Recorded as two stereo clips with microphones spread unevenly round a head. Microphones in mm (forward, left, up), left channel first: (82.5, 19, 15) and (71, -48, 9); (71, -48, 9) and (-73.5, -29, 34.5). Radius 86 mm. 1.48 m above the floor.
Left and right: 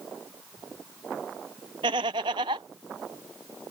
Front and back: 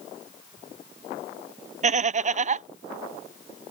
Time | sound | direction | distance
1.8 | laughter | 145° right | ?